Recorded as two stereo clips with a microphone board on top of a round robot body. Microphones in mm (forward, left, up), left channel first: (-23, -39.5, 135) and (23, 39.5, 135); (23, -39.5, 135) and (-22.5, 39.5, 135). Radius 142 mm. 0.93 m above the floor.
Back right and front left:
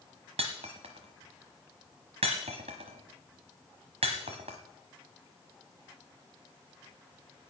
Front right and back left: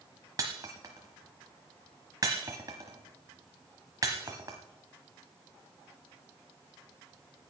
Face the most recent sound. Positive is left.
turn(degrees=65)